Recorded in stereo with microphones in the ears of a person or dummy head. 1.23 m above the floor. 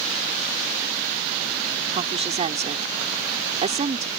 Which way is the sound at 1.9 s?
35° right (ahead or behind).